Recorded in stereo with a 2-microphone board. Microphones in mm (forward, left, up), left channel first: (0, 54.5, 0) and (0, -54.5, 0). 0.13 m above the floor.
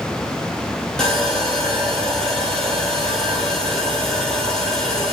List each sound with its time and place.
1.0 s sawing: 5° left (ahead or behind), 1.1 m